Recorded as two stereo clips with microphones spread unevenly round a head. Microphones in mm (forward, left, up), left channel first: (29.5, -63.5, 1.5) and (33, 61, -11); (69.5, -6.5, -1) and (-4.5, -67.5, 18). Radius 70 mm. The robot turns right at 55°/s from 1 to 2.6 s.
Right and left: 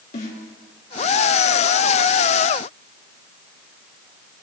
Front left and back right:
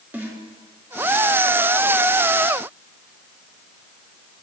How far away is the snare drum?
About 3.5 m.